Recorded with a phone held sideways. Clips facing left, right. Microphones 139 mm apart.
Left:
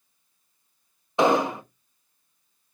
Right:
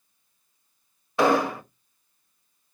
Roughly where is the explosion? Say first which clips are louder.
Even; centre.